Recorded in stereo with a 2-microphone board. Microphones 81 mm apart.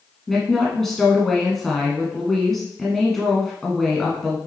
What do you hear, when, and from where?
0.3 s a woman speaking: 5° left (ahead or behind), 1.6 m